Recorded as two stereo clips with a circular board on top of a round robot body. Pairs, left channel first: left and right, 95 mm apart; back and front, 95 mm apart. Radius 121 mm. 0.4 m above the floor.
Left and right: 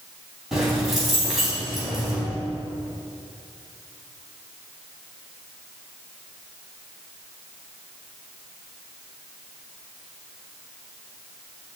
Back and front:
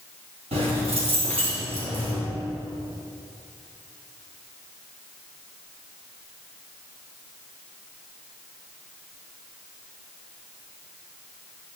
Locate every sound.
0.5 s keys jangling: straight ahead, 3 m